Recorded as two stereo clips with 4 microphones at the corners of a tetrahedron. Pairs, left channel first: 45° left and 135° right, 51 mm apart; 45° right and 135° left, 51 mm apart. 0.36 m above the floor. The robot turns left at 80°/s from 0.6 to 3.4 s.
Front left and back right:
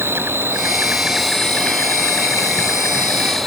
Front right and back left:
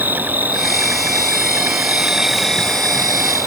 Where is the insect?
175° right; by 3.5 s 40° right.